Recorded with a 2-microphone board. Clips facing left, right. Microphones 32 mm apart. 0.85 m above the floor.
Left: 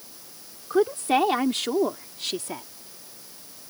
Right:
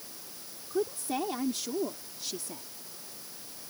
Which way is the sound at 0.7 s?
60° left (ahead or behind).